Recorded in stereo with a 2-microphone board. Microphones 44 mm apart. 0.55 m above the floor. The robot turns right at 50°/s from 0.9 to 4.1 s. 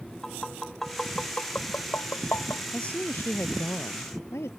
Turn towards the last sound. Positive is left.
turn(degrees=95)